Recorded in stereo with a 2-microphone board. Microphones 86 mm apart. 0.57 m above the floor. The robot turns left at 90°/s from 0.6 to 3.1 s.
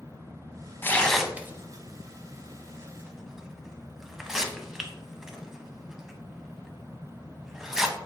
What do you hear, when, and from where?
0.8 s tearing paper: 25° left (ahead or behind), 0.6 m; by 8.0 s 5° right (ahead or behind), 0.6 m